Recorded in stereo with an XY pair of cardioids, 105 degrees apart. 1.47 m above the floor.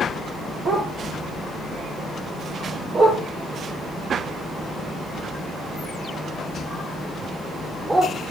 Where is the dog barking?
55° right, 7 m; by 8.1 s 20° right, 11 m.